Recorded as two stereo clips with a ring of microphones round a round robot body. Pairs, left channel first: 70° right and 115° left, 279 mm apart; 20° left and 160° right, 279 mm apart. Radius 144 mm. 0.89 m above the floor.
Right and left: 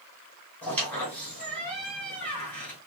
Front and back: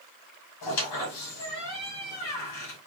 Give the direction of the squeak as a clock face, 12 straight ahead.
11 o'clock.